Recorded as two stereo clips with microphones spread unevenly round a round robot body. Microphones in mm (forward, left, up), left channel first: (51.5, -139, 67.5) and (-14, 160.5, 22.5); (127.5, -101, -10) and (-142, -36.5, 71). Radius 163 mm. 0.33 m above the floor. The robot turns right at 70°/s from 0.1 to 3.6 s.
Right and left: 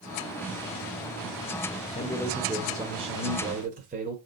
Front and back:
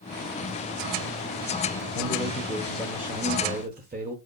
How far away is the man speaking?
About 1.2 m.